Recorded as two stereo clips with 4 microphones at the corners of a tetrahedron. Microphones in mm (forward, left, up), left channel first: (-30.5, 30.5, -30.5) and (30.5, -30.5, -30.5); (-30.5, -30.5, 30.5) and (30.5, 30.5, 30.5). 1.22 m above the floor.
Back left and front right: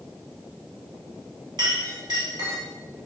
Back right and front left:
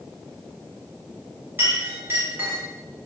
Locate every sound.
1.6 s a clink: 20° right, 1.7 m